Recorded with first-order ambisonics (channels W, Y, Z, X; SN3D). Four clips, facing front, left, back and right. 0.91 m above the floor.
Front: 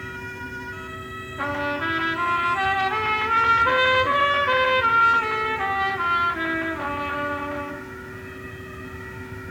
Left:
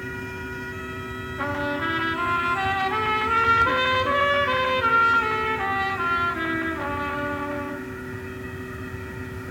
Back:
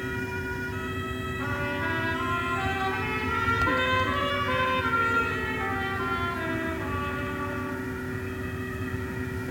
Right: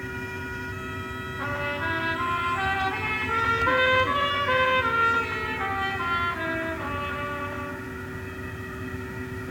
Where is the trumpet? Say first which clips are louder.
Left 3 dB, front 6 dB; 40° left, 1.8 m.